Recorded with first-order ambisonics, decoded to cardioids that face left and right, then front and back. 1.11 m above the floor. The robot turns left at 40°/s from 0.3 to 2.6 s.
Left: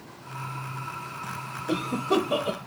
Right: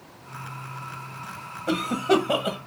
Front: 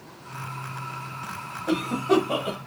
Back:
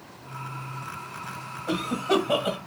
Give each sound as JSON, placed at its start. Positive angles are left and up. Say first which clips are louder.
{"t": 1.7, "sound": "a cough", "louder": "right 4 dB, front 2 dB", "azimuth_deg": -75, "distance_m": 0.8}